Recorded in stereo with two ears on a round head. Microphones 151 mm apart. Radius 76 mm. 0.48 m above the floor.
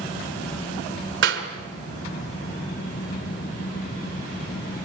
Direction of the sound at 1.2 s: 80° right.